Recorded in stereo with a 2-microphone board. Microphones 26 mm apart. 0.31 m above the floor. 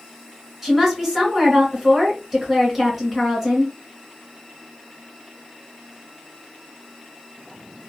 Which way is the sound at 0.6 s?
5° right (ahead or behind).